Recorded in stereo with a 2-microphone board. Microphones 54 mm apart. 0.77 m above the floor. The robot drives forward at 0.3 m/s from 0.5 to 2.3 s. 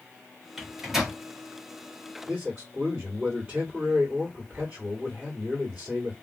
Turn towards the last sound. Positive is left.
turn(degrees=-30)  # may be behind; listen again after turning